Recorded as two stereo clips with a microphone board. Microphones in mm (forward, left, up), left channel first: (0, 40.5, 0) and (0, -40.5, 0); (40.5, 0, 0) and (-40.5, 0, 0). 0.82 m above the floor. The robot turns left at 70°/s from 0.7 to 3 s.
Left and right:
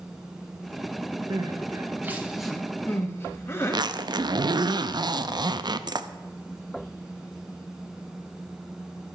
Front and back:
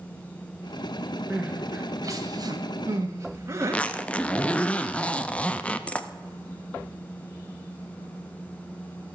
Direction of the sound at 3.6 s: 75° right.